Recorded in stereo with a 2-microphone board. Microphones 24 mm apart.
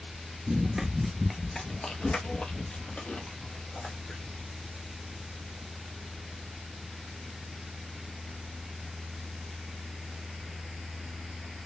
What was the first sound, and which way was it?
Running footsteps, 30° right (ahead or behind).